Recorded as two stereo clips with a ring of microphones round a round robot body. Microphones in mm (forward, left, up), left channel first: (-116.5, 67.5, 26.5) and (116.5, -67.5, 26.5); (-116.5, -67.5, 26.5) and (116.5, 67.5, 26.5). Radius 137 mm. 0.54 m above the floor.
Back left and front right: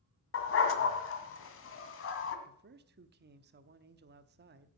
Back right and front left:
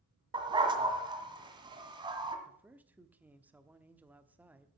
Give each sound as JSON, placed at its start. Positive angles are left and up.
{"t": 0.3, "sound": "a dog barking", "azimuth_deg": 105, "distance_m": 1.7}
{"t": 2.5, "sound": "a man speaking", "azimuth_deg": -50, "distance_m": 0.9}